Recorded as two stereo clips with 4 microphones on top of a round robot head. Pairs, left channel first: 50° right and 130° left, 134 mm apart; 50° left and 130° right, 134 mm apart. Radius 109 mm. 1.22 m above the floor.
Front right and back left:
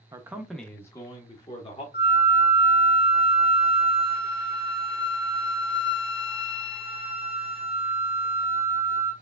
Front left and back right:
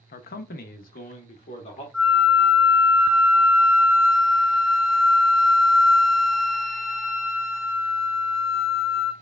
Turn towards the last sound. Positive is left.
turn(degrees=-40)